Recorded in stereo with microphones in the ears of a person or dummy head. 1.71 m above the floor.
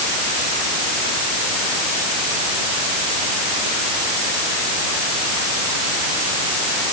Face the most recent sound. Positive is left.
No sound to turn to.